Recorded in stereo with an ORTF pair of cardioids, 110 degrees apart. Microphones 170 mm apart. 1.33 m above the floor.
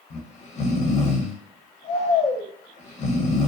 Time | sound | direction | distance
0.1 | snoring | 45° left | 0.8 m